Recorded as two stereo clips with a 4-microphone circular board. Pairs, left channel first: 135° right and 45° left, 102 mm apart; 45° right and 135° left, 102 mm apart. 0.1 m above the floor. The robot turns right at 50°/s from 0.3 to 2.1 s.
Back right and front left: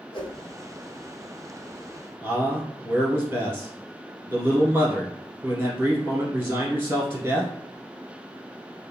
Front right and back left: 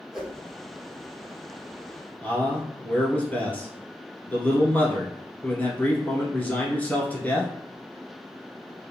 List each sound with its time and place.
0.1 s a whoosh: 140° right, 0.8 m
2.2 s a man speaking: 10° left, 1.3 m